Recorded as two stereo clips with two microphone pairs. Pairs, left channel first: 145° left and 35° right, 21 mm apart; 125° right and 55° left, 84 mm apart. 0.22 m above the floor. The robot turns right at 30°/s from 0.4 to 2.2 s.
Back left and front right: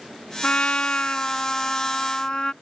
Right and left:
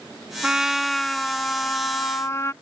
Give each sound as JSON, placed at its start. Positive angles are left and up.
{"t": 0.4, "sound": "a trumpet", "azimuth_deg": 130}